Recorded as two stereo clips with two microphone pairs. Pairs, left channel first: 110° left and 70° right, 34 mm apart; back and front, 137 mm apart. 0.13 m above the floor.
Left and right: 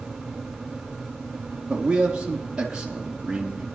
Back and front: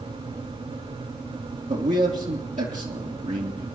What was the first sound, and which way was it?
A man speaking, straight ahead.